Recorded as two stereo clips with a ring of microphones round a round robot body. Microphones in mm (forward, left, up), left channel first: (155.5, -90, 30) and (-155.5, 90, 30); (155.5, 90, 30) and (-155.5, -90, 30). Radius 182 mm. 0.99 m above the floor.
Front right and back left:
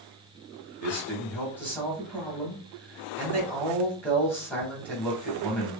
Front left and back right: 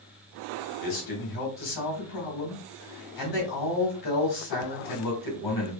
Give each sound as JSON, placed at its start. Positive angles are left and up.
{"t": 0.8, "sound": "a man speaking", "azimuth_deg": 55, "distance_m": 1.6}